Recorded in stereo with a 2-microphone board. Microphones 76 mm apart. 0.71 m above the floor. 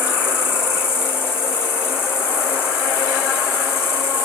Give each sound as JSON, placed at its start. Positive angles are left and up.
{"t": 0.0, "sound": "an insect", "side_deg": 30, "distance_m": 3.0}